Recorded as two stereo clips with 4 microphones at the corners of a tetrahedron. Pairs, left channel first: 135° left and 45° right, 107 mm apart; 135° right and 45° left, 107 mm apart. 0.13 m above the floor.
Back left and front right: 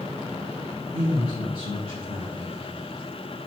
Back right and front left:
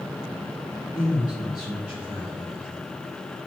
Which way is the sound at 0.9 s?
110° left.